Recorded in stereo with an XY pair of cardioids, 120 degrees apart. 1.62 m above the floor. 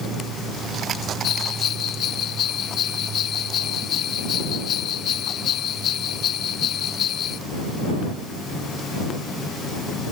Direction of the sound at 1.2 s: 55° left.